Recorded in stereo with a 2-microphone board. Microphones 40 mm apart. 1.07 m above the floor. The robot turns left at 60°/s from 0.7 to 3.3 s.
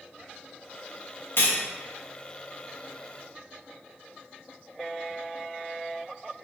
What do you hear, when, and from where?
1.4 s cutlery clinking: 65° left (ahead or behind), 0.7 m; by 1.6 s 55° left (ahead or behind), 0.7 m